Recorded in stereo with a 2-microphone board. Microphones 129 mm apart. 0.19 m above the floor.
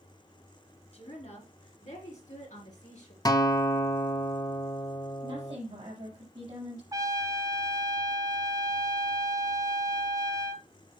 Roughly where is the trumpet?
Right.